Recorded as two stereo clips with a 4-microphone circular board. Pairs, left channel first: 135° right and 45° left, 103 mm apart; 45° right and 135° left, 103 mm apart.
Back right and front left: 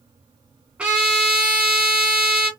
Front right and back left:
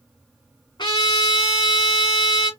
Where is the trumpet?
30° right, 2 m.